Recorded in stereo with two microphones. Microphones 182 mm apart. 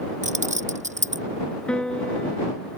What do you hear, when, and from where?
0.2 s keys jangling: 40° right (ahead or behind)
1.7 s a piano: 5° left (ahead or behind)